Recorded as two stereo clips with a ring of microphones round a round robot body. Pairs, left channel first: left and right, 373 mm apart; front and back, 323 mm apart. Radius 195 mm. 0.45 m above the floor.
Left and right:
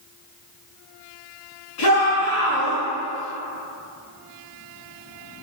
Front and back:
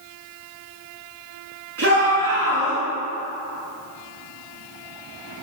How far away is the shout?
About 6 m.